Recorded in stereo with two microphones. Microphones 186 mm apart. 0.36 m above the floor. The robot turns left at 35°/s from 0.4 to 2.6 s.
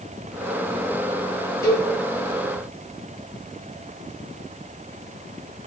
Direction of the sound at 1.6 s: 15° left (ahead or behind).